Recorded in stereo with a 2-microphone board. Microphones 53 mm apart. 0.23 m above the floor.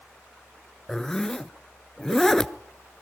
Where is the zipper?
10° left (ahead or behind), 0.5 m.